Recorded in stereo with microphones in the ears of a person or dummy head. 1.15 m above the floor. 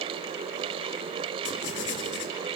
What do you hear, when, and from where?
1.4 s writing: 60° left (ahead or behind), 1.8 m